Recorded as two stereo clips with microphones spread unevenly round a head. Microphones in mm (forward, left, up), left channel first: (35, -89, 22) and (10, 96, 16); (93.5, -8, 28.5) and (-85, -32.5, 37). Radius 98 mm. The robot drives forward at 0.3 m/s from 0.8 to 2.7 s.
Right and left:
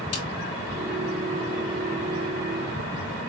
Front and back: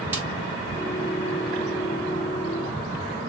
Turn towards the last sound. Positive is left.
turn(degrees=-110)